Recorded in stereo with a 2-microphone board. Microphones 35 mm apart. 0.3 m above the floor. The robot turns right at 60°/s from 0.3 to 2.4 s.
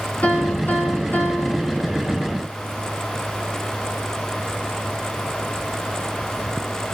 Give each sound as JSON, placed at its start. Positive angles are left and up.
{"t": 0.2, "sound": "a piano", "azimuth_deg": 55, "distance_m": 2.5}